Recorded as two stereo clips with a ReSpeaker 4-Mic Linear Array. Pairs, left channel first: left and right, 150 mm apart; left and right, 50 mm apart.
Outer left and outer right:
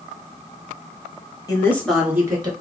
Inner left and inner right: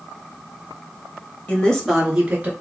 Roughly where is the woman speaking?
Left.